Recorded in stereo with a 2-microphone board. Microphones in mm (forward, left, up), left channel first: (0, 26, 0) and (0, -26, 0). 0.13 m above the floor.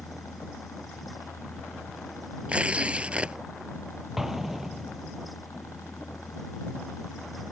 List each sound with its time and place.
0.0 s a helicopter: 70° left (ahead or behind)
2.5 s tearing paper: 25° right (ahead or behind)
4.2 s an explosion: 5° right (ahead or behind)